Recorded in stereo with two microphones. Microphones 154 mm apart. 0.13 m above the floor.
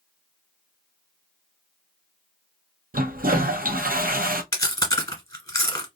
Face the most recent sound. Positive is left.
turn(degrees=20)  # may be behind; listen again after turning